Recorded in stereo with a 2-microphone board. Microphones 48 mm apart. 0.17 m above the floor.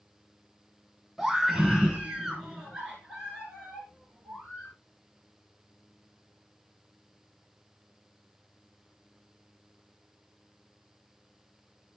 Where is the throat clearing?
I don't hear throat clearing.